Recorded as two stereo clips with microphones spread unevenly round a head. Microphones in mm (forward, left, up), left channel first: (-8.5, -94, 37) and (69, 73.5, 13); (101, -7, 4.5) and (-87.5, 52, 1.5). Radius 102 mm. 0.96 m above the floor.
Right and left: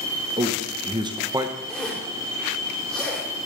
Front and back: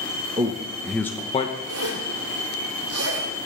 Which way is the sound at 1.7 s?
155° left.